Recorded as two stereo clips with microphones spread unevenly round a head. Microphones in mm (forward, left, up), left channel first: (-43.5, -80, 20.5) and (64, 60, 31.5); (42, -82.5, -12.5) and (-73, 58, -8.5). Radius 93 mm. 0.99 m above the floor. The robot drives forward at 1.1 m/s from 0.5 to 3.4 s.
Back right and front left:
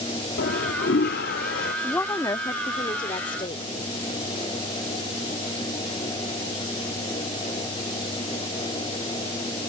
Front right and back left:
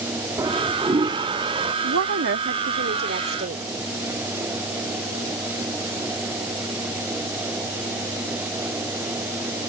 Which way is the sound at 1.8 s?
150° left.